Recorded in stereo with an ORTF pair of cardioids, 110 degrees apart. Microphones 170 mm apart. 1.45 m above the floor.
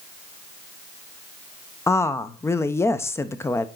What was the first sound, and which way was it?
A woman speaking, 15° left.